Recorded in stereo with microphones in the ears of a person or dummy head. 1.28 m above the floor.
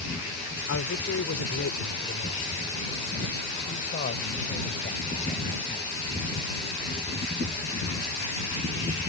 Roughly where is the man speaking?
Left.